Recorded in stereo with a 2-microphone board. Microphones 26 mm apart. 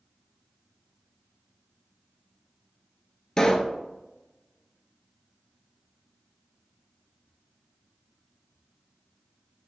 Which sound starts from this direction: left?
A pop, at 3.4 s.